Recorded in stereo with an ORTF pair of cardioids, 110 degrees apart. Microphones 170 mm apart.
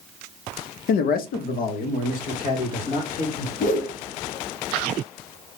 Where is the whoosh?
50° left, 0.9 m.